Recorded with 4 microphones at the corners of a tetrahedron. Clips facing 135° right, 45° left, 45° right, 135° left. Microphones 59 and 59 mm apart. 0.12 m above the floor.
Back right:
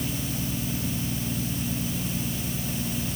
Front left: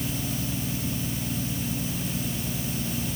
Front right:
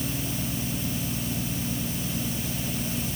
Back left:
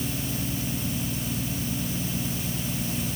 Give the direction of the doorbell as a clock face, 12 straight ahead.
No doorbell in this recording.